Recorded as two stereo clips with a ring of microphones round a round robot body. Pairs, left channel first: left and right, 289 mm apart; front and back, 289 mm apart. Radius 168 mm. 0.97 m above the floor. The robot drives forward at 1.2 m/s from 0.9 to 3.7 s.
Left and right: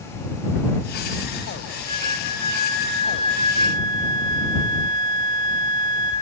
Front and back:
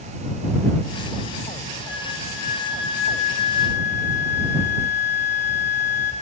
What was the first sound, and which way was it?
A flute, 10° left.